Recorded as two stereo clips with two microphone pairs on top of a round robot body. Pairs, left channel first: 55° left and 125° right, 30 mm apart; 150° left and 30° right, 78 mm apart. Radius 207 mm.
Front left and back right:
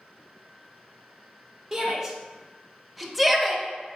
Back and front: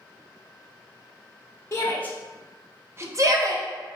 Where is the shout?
170° left, 0.8 m; by 3.6 s 30° right, 1.0 m.